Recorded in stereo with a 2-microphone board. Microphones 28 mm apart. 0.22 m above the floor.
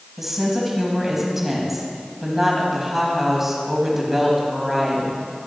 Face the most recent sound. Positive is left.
turn(degrees=-10)  # may be behind; listen again after turning